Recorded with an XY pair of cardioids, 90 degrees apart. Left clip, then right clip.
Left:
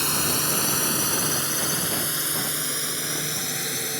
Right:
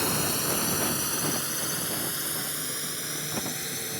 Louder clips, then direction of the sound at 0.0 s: Left 3 dB; 40° left.